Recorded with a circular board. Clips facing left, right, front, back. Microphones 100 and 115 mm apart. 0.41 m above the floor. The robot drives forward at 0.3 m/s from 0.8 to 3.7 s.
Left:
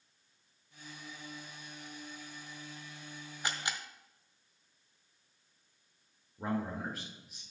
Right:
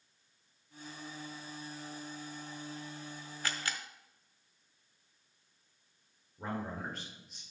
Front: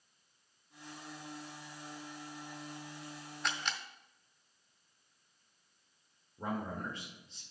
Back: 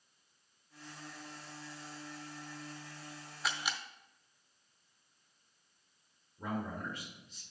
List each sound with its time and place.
3.4 s a camera shutter: 100° left, 0.6 m; by 3.8 s 115° left, 0.6 m
6.4 s a man speaking: 10° left, 1.6 m